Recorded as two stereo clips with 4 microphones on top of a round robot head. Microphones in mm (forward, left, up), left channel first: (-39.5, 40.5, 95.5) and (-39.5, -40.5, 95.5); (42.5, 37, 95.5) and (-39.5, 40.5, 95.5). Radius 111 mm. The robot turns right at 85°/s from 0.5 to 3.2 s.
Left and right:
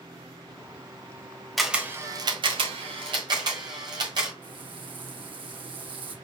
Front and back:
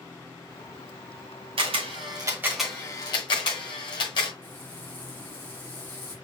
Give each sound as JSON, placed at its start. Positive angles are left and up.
{"t": 1.6, "sound": "a camera shutter", "azimuth_deg": 180, "distance_m": 1.3}
{"t": 4.4, "sound": "frying", "azimuth_deg": -70, "distance_m": 1.7}